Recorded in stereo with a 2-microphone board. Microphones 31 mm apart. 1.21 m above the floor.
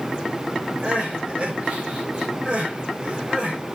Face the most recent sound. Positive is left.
turn(degrees=-30)  # may be behind; listen again after turning